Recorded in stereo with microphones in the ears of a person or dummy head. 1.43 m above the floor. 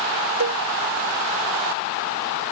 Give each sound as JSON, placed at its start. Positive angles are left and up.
{"t": 0.4, "sound": "a cowbell", "side_deg": -70}